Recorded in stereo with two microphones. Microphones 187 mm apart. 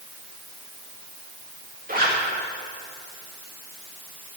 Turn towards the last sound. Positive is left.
turn(degrees=-50)  # may be behind; listen again after turning